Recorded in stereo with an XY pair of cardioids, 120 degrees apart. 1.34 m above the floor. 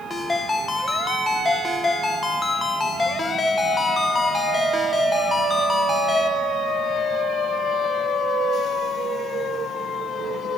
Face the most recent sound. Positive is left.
turn(degrees=20)